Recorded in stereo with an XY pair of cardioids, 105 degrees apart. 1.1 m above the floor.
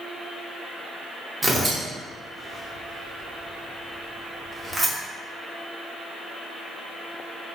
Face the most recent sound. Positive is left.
turn(degrees=-20)